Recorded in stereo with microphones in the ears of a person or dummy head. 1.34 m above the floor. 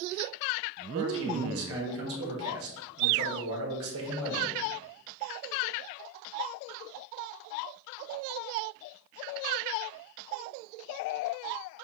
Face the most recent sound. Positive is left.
turn(degrees=-70)  # may be behind; listen again after turning